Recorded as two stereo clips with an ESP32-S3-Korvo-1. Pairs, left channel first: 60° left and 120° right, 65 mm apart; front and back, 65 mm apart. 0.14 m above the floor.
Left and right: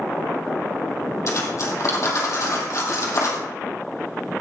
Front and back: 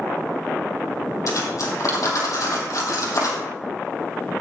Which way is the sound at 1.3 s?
25° left.